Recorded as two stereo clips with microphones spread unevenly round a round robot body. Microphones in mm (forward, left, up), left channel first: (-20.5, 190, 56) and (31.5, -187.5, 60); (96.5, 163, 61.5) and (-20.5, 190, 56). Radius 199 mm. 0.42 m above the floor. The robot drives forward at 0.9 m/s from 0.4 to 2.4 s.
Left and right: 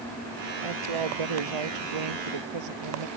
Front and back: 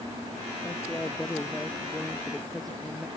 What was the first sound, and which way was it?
A woman speaking, 95° right.